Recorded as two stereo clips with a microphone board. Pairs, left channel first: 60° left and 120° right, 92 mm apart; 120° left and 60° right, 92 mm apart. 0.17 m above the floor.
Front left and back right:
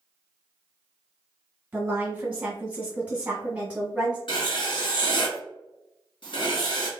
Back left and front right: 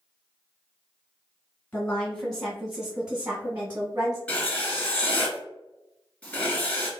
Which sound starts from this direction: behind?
A woman speaking, at 1.7 s.